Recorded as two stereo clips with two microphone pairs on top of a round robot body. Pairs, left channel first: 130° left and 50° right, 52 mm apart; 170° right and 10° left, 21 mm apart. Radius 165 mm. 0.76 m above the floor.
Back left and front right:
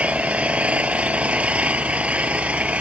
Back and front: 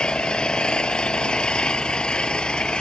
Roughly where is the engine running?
Behind right.